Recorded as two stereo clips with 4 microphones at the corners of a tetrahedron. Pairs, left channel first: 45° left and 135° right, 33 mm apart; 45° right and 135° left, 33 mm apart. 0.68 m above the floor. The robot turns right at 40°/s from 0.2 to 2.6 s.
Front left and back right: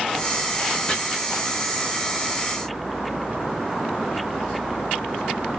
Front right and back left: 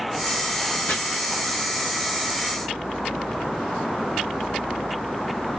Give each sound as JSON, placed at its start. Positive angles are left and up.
{"t": 0.9, "sound": "chopping", "azimuth_deg": -25, "distance_m": 1.2}